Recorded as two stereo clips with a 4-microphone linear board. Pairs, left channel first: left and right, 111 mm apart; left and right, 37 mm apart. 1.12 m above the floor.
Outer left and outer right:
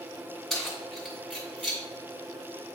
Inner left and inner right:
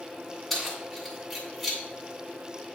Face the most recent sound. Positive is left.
turn(degrees=5)  # may be behind; listen again after turning